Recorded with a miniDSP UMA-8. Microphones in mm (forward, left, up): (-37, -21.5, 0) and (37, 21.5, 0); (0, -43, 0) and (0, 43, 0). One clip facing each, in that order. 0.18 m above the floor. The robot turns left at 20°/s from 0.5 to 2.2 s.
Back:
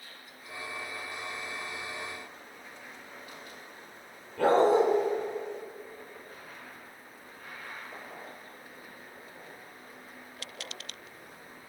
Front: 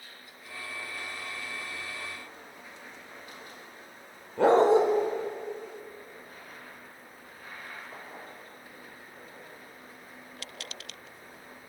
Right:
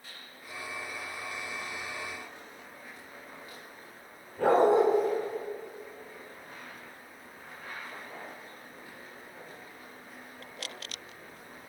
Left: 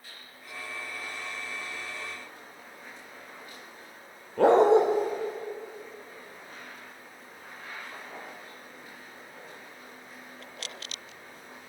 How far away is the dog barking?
About 2 m.